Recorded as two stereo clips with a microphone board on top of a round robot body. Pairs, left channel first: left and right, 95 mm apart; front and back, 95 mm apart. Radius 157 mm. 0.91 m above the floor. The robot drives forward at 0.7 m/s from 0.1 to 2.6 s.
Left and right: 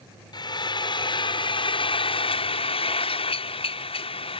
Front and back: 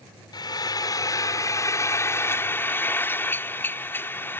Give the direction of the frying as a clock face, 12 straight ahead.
10 o'clock.